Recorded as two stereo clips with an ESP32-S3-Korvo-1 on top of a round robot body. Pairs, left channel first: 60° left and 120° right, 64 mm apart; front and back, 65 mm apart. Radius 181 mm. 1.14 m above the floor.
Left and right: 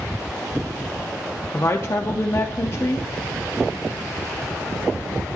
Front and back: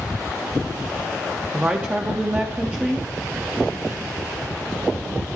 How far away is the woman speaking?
About 0.5 m.